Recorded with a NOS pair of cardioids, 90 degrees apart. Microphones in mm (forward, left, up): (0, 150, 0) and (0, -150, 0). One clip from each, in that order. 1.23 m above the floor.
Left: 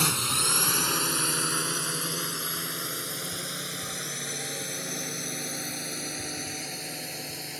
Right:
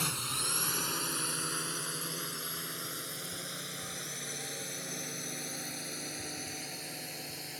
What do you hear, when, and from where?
0.0 s a drone: 60° left; by 7.6 s 45° left